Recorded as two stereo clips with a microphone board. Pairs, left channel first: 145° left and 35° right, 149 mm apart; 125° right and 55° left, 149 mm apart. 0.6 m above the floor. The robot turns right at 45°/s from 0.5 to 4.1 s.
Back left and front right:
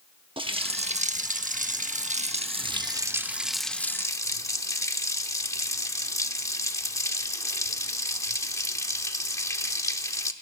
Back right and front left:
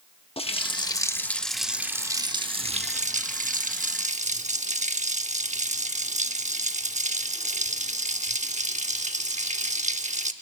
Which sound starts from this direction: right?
A running tap, at 0.4 s.